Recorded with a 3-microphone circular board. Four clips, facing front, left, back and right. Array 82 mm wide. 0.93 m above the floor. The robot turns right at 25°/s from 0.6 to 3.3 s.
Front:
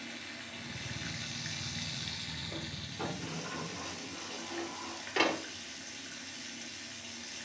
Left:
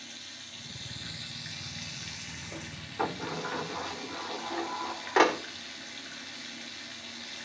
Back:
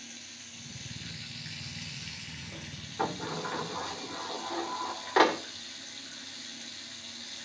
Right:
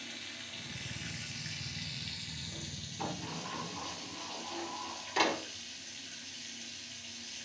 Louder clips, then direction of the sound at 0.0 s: Right 1 dB, front 6 dB; straight ahead.